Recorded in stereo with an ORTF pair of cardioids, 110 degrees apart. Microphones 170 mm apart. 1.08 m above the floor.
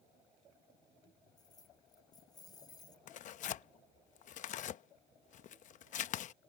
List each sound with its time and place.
1.4 s keys jangling: 25° left
3.1 s tearing paper: 50° left